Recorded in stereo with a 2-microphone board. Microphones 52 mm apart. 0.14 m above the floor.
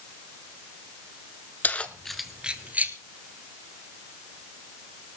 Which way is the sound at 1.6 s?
35° left (ahead or behind).